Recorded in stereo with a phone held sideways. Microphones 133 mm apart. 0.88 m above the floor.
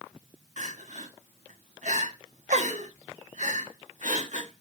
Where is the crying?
65° right (ahead or behind), 1.6 m.